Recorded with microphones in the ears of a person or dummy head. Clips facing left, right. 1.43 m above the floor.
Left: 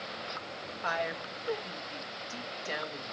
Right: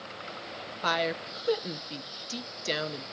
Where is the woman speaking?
50° right (ahead or behind), 1.0 m.